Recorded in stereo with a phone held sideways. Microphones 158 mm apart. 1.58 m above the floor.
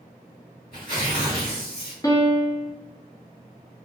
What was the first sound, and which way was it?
Tearing paper, 70° left (ahead or behind).